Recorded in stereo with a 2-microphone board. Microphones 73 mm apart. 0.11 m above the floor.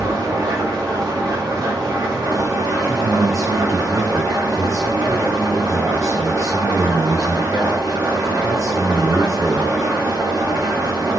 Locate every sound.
0.0 s an engine running: 65° right (ahead or behind), 2.5 m
2.8 s a man speaking: 45° right (ahead or behind), 2 m